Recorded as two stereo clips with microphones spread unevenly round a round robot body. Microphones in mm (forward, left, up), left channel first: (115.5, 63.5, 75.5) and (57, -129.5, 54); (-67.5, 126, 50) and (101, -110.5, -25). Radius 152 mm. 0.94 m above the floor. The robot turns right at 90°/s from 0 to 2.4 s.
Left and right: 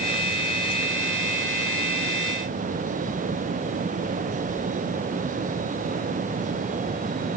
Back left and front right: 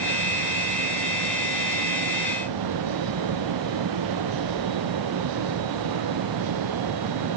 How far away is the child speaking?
I don't hear a child speaking.